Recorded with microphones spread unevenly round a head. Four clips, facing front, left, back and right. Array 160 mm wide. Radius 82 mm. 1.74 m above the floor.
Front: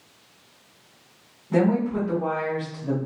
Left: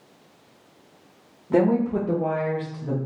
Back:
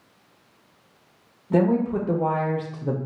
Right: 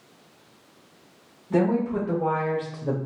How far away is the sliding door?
No sliding door in this recording.